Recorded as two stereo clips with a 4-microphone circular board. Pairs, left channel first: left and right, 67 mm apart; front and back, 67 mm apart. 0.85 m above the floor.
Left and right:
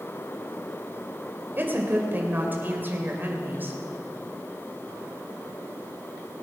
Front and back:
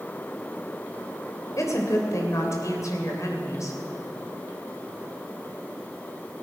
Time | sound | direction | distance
1.6 | a woman speaking | 30° right | 3 m